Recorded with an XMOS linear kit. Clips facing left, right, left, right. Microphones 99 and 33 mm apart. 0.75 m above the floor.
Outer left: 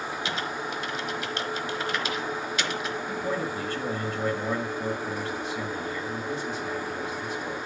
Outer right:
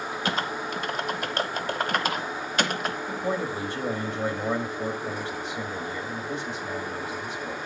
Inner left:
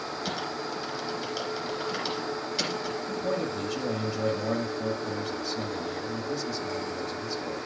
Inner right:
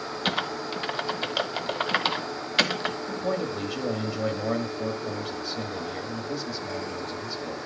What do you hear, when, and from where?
0.2 s typing on a keyboard: 50° right (ahead or behind), 1.2 m
3.1 s a man speaking: 10° right (ahead or behind), 1.5 m